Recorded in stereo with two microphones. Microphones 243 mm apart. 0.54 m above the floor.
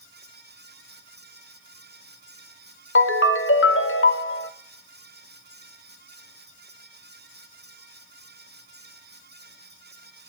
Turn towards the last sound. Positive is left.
turn(degrees=55)  # may be behind; listen again after turning